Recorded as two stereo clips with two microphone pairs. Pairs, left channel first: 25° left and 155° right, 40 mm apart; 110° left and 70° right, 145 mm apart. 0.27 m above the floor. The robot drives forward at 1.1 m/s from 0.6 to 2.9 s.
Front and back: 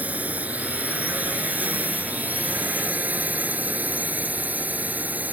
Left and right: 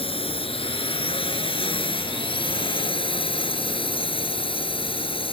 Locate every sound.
0.0 s a drone: 160° left